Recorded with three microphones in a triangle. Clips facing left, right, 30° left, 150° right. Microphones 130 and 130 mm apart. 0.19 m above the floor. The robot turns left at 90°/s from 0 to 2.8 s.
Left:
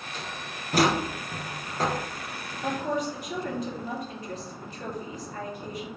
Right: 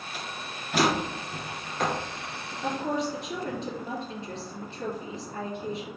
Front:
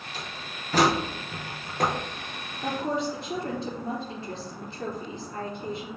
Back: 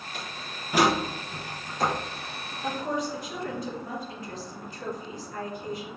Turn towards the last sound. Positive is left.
turn(degrees=-30)